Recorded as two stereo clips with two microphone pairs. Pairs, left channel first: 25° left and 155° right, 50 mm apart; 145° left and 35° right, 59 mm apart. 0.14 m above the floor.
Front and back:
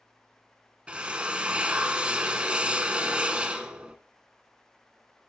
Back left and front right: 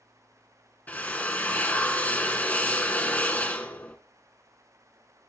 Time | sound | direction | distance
0.9 | a drill | 170° left | 1.2 m